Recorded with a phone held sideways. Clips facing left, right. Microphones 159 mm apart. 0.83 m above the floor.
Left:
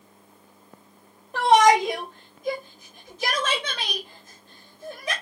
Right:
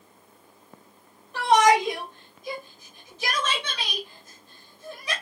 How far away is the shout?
About 2.5 m.